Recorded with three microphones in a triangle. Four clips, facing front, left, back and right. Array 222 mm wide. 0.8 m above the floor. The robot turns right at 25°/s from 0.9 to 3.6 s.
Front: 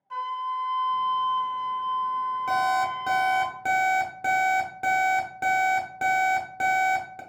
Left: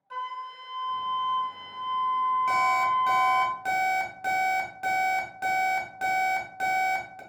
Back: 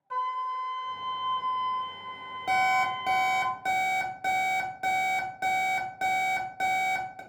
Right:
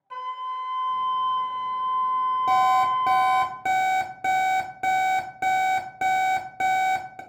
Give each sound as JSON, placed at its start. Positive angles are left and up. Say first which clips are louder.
{"t": 0.1, "sound": "a flute", "louder": "right 4 dB, front 1 dB", "azimuth_deg": -165, "distance_m": 0.6}
{"t": 2.5, "sound": "an alarm clock", "louder": "right 4 dB, back 1 dB", "azimuth_deg": -90, "distance_m": 0.7}